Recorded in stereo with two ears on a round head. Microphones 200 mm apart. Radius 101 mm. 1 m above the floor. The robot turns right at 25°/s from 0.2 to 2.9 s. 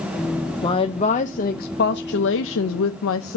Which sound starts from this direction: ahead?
A woman speaking, at 0.6 s.